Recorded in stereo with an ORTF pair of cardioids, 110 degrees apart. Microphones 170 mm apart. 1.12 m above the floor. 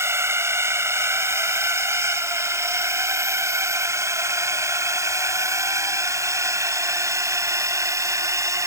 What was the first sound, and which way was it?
A drone, 15° right.